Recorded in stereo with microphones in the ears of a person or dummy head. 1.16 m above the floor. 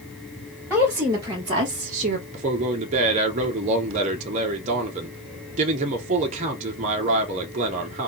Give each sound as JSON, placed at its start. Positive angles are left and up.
{"t": 0.7, "sound": "a woman speaking", "side_deg": -5, "distance_m": 1.4}
{"t": 2.3, "sound": "a man speaking", "side_deg": -40, "distance_m": 0.7}